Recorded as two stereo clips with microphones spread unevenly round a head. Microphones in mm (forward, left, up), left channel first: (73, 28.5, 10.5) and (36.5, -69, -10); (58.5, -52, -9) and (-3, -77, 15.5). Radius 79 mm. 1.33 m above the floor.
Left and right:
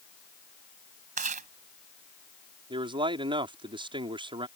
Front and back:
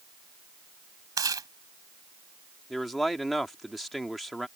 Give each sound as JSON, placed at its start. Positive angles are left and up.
{"t": 1.2, "sound": "chewing", "azimuth_deg": -155}
{"t": 2.7, "sound": "a man speaking", "azimuth_deg": -70}